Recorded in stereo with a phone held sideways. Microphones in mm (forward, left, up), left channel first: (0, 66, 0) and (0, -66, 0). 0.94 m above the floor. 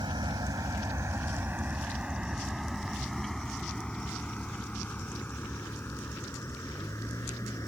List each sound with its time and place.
0.0 s a vehicle: 35° right (ahead or behind); by 7.7 s 25° left (ahead or behind)